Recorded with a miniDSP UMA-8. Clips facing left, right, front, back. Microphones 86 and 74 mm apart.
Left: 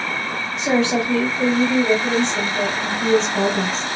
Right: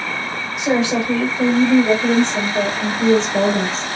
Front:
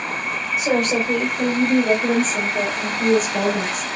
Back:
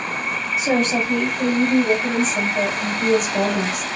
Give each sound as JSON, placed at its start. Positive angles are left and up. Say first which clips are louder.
{"t": 0.6, "sound": "a woman speaking", "louder": "right 1 dB, even", "azimuth_deg": -20, "distance_m": 1.7}